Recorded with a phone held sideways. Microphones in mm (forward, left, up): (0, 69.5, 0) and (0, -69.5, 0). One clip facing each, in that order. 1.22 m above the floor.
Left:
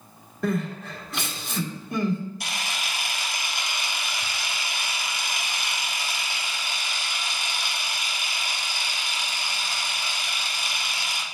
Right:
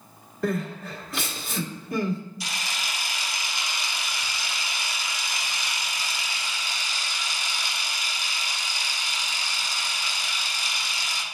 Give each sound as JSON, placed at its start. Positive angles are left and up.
{"t": 0.4, "sound": "crying", "side_deg": 0, "distance_m": 1.9}
{"t": 2.4, "sound": "a camera shutter", "side_deg": 60, "distance_m": 1.1}